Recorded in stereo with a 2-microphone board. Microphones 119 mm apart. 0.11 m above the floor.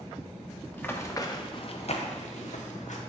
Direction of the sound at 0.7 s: 15° left (ahead or behind).